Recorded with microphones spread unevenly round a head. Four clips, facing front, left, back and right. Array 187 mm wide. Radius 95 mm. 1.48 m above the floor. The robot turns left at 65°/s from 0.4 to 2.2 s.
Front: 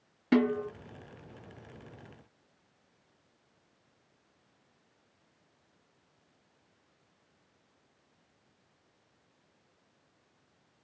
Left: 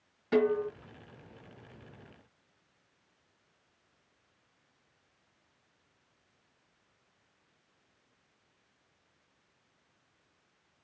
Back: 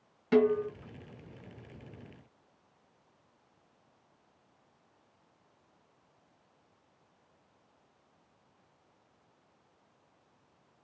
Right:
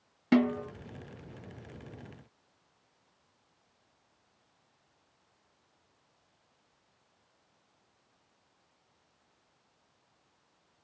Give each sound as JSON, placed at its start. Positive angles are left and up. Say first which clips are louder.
{"t": 0.3, "sound": "a snare drum", "louder": "even, back 1 dB", "azimuth_deg": -75, "distance_m": 2.5}